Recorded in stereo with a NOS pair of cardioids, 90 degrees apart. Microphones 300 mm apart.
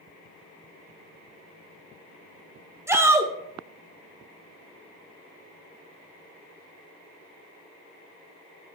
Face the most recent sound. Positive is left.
turn(degrees=-10)